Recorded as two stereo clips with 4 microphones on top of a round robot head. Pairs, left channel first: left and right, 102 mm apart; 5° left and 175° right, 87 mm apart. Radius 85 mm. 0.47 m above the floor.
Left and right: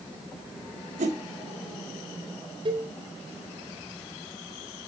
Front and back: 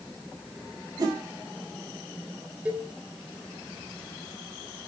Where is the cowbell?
105° right, 1.8 m.